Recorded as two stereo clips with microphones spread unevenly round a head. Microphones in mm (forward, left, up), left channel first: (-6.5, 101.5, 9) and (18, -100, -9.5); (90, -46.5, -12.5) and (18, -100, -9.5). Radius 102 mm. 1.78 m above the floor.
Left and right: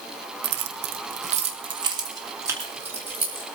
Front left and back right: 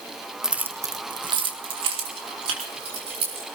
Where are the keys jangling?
65° right, 1.1 m; by 3.5 s 165° right, 4.5 m.